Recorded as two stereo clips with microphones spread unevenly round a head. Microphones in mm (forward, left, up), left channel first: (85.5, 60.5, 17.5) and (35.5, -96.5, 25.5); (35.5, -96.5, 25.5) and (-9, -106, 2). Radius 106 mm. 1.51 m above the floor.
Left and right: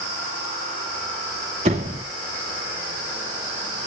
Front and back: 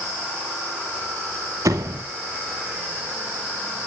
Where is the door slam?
170° right, 2 m.